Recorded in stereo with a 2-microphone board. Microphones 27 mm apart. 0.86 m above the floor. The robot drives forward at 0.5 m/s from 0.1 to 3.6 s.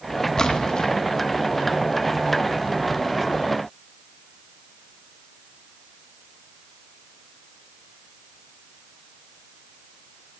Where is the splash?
25° left (ahead or behind), 0.9 m; by 0.9 s 30° left (ahead or behind), 0.8 m.